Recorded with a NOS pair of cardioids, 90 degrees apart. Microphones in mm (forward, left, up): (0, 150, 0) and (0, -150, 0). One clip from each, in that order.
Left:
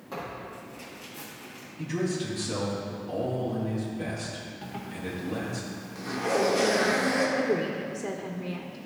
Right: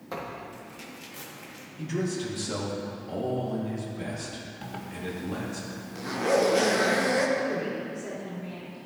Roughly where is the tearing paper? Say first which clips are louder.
Even; ahead right.